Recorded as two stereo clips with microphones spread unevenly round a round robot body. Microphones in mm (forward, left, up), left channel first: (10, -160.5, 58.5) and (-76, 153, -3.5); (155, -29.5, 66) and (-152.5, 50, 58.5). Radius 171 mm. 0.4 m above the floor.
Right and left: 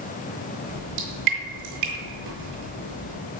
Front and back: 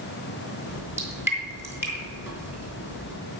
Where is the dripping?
80° left, 4.5 m.